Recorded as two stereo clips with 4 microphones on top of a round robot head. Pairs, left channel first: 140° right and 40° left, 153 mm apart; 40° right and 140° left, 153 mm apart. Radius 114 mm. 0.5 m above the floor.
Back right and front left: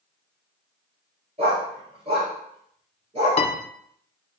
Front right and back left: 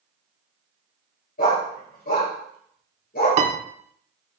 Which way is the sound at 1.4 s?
10° right.